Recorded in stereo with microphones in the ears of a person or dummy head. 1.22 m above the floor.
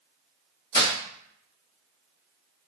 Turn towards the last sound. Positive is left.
turn(degrees=20)  # may be behind; listen again after turning